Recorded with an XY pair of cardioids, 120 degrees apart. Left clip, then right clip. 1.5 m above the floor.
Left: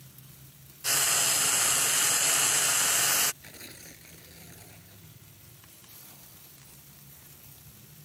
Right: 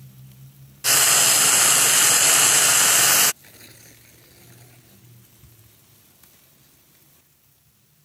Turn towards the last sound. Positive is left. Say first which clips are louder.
# left 1 dB
turn(degrees=5)